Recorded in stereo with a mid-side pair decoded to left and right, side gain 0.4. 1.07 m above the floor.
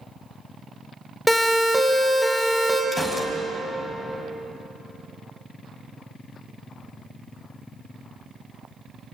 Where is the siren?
Straight ahead, 6 m.